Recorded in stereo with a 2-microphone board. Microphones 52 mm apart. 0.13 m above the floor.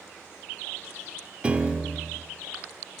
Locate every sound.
1.4 s a piano: 20° right (ahead or behind), 1.5 m